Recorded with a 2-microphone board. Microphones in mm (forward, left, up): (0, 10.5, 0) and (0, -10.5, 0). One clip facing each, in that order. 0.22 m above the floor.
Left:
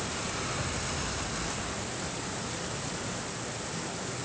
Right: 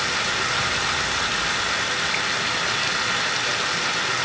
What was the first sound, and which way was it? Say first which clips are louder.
Running water: right 12 dB; 75° right (ahead or behind).